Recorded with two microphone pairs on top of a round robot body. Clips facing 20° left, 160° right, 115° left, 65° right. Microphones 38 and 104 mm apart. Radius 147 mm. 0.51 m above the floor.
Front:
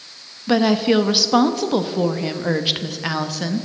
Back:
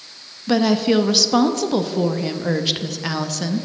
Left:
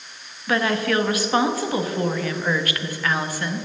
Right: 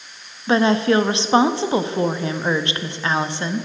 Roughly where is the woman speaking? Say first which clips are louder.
Front 1 dB, right 5 dB; ahead right.